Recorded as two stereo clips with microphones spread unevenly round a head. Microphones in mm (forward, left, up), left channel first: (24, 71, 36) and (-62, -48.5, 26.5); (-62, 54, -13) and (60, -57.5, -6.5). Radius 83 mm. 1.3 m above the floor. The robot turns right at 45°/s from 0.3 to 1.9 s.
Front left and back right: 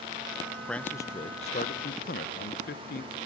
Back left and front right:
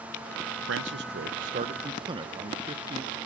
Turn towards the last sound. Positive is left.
turn(degrees=20)